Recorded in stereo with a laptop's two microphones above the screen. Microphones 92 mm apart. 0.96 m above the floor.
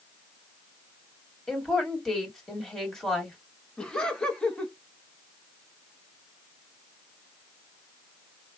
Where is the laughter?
10° left (ahead or behind), 1.2 m.